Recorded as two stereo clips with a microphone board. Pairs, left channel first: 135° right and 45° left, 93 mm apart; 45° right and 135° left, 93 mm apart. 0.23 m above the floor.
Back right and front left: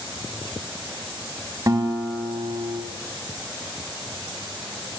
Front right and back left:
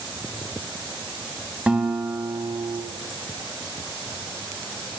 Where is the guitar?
65° left, 1.2 m.